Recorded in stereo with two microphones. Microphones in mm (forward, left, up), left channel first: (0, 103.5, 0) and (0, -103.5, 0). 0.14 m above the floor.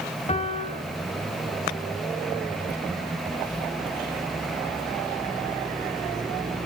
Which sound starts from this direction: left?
A piano, at 0.3 s.